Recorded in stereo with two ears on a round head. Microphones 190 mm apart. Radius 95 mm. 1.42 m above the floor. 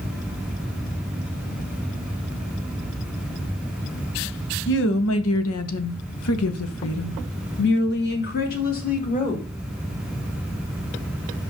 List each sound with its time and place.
4.7 s a woman speaking: 60° left (ahead or behind), 1.4 m; by 9.4 s 40° left (ahead or behind), 2.5 m